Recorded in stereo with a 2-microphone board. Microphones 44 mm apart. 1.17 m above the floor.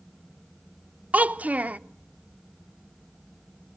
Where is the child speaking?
35° right (ahead or behind), 0.6 m.